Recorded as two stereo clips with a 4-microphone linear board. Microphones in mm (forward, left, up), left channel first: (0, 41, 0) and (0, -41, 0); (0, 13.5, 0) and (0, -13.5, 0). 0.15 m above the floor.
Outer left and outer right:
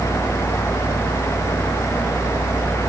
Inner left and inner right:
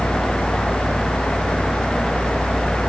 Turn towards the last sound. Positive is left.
No sound to turn to.